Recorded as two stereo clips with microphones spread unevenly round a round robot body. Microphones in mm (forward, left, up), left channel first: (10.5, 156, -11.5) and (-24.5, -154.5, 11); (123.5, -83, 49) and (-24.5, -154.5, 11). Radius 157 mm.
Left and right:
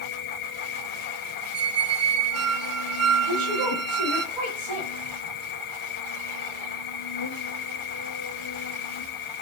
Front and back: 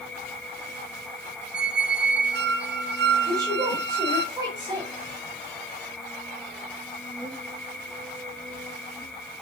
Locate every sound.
0.0 s an insect: 110° left, 1.1 m
1.5 s a squeak: 140° right, 0.8 m
3.3 s a woman speaking: 95° right, 1.9 m